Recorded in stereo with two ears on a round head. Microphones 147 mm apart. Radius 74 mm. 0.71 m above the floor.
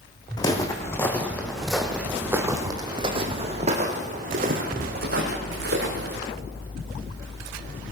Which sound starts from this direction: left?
Footsteps, at 0.4 s.